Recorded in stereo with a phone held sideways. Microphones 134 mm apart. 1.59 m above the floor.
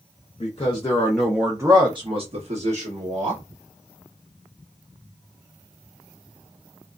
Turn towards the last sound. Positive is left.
turn(degrees=-65)  # may be behind; listen again after turning